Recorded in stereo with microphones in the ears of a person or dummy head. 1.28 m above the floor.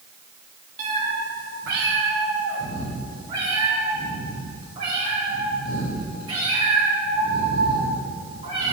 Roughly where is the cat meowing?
Right.